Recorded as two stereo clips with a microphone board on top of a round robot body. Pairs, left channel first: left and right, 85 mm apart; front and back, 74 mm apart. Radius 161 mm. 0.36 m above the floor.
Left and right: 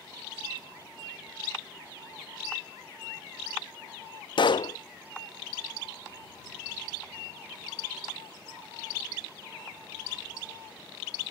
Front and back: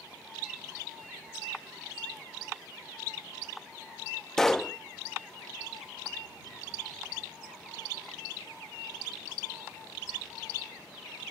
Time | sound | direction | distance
4.4 | a pop | 85° left | ?